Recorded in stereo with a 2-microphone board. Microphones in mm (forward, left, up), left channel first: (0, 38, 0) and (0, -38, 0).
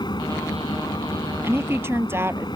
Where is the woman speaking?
30° right (ahead or behind).